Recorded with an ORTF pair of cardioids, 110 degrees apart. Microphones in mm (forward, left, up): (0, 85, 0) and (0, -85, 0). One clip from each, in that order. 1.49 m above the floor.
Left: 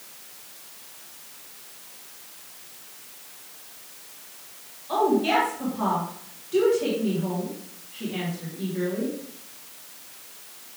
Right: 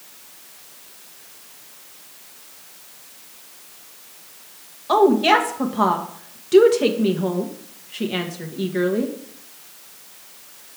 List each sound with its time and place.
4.9 s a woman speaking: 65° right, 1.2 m